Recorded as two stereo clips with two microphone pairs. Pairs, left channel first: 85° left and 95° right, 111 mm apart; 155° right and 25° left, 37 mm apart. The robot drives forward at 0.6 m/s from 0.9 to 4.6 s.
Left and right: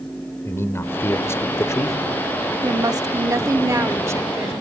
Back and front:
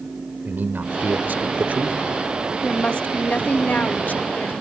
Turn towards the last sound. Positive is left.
turn(degrees=-160)